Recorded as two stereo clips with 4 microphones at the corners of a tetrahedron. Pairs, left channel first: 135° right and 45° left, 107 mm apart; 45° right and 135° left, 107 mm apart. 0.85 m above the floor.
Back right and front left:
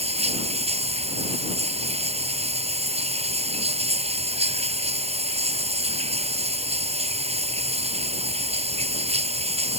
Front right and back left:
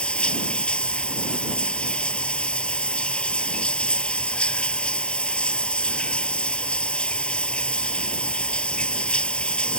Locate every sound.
0.0 s running water: 35° left